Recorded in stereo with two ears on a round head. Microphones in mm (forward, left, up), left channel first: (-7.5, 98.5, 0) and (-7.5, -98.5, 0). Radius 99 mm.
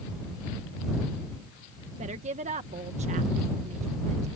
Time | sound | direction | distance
2.0 | a woman speaking | 30° right (ahead or behind) | ?